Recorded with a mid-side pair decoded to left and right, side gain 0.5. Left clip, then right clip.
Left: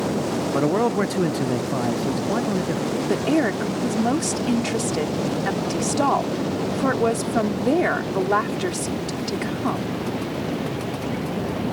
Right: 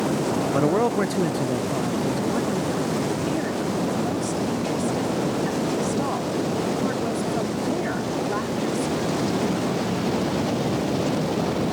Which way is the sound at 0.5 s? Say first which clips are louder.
Left 1 dB; 5° right.